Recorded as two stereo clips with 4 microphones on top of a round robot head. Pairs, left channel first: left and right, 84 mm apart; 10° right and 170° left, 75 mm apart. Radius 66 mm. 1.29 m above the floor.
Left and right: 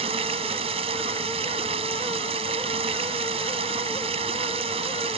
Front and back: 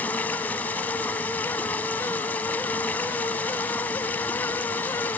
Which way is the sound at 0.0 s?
85° right.